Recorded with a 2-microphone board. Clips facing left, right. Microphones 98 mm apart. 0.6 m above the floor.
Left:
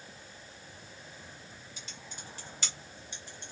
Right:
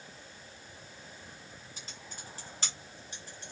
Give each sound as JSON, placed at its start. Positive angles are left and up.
{"t": 1.8, "sound": "typing on a keyboard", "side_deg": -40, "distance_m": 1.5}